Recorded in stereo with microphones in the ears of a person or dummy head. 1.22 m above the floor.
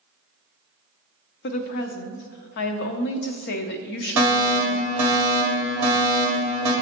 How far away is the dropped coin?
I don't hear a dropped coin.